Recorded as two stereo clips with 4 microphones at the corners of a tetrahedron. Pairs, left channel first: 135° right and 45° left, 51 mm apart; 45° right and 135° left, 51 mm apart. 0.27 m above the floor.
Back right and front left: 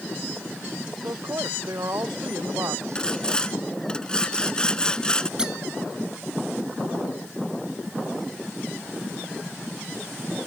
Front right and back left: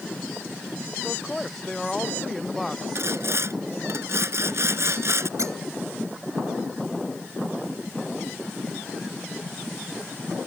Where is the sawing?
155° left.